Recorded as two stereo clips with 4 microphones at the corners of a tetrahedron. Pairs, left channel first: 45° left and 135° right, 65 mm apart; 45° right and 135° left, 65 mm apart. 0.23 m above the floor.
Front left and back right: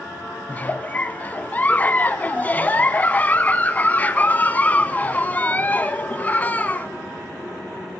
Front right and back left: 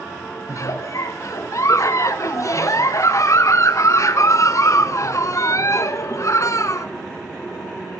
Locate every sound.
0.5 s a giggle: 15° right, 0.7 m